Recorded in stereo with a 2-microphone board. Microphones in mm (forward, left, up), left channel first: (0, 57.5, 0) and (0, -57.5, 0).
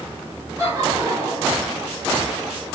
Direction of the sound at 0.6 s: 30° right (ahead or behind).